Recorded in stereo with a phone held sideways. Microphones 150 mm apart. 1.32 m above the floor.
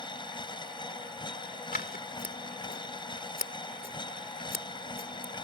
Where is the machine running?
30° left (ahead or behind).